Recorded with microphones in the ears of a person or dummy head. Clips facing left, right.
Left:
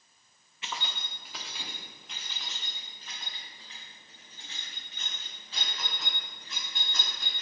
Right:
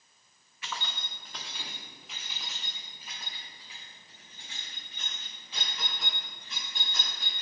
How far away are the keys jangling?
About 0.6 m.